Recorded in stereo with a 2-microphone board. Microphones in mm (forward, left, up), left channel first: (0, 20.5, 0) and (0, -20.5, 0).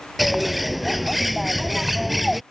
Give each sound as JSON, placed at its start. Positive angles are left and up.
{"t": 0.2, "sound": "a bird", "side_deg": 0}